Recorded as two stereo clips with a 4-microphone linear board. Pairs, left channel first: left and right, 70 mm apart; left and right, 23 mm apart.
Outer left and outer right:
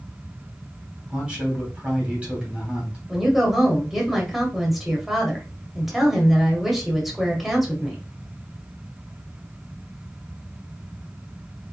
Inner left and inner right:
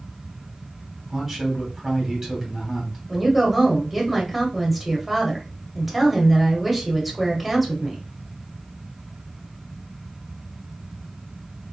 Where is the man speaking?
15° right (ahead or behind), 2.5 m.